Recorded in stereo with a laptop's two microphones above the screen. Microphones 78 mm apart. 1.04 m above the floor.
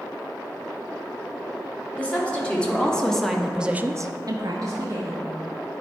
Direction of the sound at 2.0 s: 15° left (ahead or behind).